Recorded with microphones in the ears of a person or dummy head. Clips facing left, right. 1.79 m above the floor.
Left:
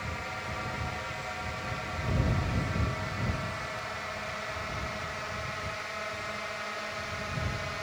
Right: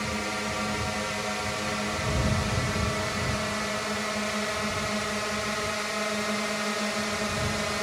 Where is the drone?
60° right (ahead or behind).